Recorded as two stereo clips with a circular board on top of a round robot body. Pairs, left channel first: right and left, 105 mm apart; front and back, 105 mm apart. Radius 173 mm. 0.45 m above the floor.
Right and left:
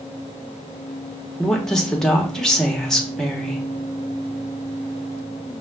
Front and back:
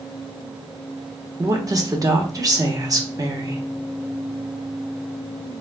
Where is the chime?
I don't hear a chime.